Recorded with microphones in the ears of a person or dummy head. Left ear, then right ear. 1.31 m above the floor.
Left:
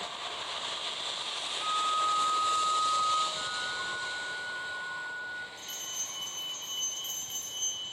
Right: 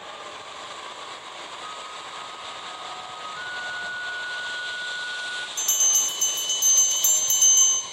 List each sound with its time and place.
1.6 s a flute: 55° left (ahead or behind), 3 m
3.4 s a flute: 5° right (ahead or behind), 0.6 m
5.6 s a bell: 55° right (ahead or behind), 1.3 m